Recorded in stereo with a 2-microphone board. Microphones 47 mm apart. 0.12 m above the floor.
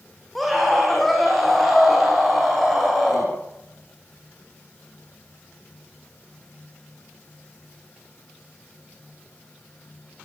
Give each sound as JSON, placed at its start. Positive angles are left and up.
{"t": 0.3, "sound": "a scream", "side_deg": 5, "distance_m": 9.0}